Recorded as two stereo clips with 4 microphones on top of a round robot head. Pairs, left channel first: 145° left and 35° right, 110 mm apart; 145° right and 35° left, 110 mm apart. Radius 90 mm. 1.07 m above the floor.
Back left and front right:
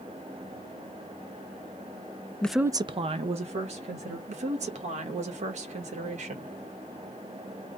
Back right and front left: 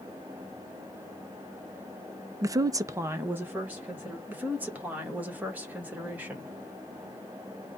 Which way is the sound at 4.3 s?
40° right.